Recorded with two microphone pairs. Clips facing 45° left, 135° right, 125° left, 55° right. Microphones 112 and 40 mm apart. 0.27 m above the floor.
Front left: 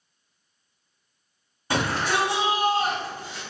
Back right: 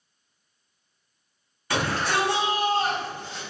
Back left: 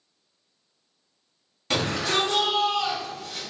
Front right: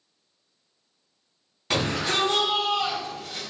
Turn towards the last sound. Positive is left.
turn(degrees=-40)